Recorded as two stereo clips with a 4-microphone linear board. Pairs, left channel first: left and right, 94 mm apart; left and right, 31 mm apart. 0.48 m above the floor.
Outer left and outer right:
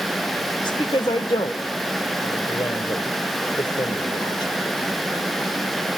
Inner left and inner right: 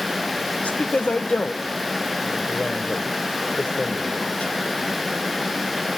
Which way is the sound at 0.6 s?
55° left (ahead or behind).